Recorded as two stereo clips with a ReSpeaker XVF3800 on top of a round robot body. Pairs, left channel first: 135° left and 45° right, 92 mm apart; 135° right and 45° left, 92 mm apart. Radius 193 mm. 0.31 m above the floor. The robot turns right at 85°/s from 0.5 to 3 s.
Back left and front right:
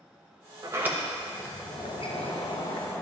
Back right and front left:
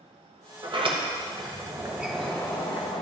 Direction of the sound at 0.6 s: 5° left.